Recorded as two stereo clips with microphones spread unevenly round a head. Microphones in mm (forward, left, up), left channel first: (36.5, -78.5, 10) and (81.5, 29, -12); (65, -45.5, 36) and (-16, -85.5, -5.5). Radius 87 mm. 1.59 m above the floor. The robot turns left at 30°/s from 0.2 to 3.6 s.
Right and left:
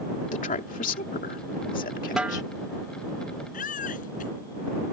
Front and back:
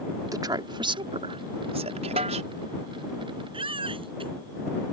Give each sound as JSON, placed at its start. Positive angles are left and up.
{"t": 0.3, "sound": "a woman speaking", "azimuth_deg": -100}
{"t": 2.2, "sound": "a snare drum", "azimuth_deg": 155}
{"t": 3.5, "sound": "a baby crying", "azimuth_deg": -125}